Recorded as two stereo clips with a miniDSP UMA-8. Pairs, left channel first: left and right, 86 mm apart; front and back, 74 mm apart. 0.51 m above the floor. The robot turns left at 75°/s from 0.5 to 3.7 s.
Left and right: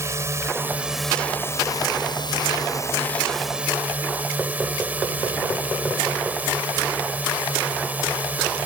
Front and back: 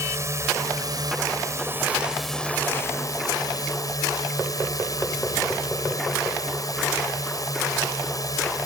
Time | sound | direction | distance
0.0 | a drone | 140° right | ?